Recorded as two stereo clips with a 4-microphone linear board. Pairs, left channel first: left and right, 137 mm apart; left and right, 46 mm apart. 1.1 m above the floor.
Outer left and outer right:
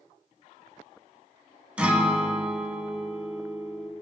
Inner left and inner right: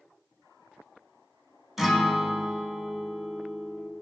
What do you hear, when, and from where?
1.8 s a guitar: 10° right (ahead or behind), 1.3 m